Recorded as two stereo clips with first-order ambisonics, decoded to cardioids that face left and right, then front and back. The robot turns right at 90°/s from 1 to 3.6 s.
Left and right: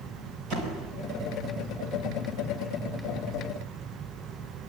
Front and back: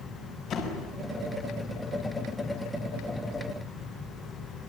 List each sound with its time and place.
0.5 s a door slam: 50° right, 5 m